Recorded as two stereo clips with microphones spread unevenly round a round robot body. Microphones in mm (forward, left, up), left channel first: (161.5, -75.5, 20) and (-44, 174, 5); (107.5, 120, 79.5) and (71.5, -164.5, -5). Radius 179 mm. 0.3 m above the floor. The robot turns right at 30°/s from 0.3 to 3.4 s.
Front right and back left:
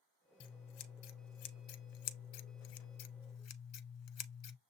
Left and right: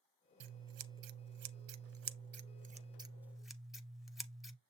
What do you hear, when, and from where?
0.4 s scissors: 95° right, 0.6 m; by 4.6 s 5° right, 0.6 m